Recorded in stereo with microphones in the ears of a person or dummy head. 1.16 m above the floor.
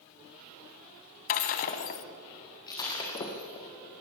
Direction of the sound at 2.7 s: 20° left (ahead or behind).